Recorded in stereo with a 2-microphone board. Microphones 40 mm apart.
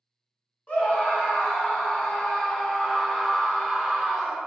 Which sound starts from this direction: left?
A scream, at 0.7 s.